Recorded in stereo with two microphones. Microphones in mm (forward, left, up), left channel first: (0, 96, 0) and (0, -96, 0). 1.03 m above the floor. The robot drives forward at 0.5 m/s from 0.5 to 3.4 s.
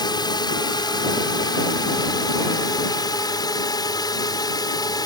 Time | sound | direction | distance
0.0 | a drone | 20° left (ahead or behind) | ?